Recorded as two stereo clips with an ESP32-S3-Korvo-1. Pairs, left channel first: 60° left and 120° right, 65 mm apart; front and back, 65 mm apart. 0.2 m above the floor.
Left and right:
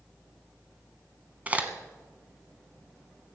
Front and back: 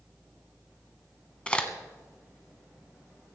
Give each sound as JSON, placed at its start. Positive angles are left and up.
{"t": 1.5, "sound": "a crack", "azimuth_deg": -65, "distance_m": 1.3}